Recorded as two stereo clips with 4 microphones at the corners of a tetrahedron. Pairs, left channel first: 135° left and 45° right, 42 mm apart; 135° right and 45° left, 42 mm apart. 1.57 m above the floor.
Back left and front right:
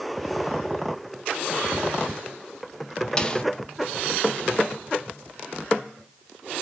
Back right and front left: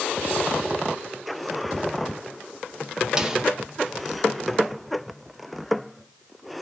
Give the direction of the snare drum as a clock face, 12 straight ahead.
9 o'clock.